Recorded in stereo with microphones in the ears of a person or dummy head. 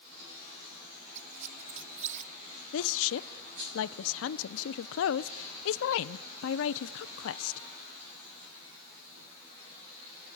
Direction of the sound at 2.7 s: 80° left.